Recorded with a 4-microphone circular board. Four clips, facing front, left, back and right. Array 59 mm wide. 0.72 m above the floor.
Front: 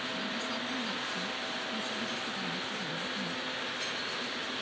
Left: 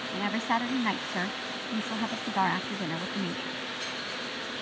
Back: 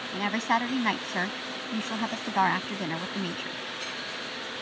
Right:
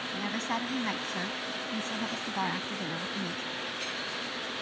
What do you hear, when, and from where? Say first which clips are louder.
0.1 s a woman speaking: left 5 dB, back 9 dB; 160° left